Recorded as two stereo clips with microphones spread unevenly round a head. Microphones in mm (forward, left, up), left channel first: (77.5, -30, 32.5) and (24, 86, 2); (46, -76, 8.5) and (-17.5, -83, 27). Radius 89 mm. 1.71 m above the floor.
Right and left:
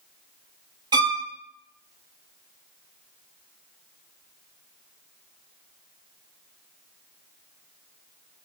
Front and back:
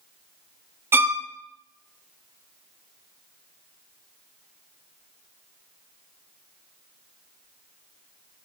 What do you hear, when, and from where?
0.9 s a violin: 170° right, 0.6 m